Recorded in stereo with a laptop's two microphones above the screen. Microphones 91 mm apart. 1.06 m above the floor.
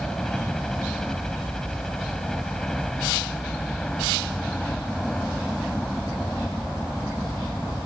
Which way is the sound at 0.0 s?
5° left (ahead or behind).